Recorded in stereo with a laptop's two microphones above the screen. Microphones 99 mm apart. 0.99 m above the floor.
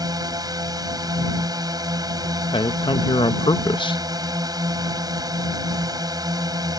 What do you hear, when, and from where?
0.0 s a drone: 40° right (ahead or behind)
2.5 s a man speaking: 55° left (ahead or behind)